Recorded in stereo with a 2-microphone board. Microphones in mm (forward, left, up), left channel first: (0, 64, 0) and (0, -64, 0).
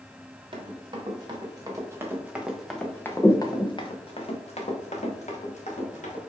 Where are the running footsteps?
45° right (ahead or behind), 1.5 m; by 6.2 s 80° left, 1.8 m.